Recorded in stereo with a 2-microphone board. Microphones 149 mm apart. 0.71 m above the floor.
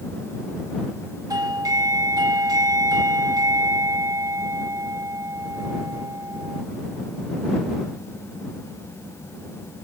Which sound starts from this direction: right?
A doorbell, at 1.3 s.